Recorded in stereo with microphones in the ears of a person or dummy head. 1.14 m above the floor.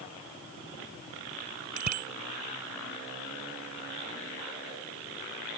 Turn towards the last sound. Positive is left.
turn(degrees=-50)  # may be behind; listen again after turning